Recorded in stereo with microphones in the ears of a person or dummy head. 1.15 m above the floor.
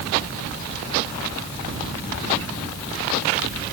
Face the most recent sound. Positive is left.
No sound to turn to.